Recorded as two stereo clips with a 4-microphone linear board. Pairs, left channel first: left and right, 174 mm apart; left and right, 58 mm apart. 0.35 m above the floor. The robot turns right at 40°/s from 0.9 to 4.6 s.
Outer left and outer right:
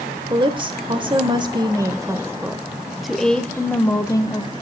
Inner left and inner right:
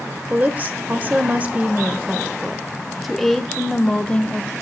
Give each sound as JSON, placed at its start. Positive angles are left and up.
{"t": 0.3, "sound": "a woman speaking", "side_deg": -30, "distance_m": 0.9}